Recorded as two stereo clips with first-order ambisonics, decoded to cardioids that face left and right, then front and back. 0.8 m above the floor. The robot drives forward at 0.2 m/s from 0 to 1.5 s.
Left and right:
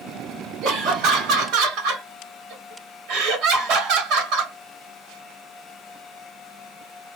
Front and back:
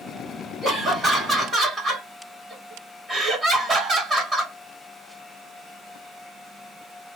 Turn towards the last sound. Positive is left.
turn(degrees=-120)